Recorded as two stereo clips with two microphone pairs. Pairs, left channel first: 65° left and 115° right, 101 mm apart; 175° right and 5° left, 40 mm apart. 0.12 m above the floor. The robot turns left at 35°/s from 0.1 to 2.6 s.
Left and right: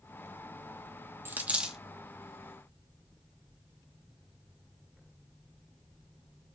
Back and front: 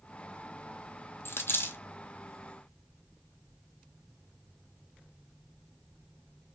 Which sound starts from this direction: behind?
A dropped coin, at 1.2 s.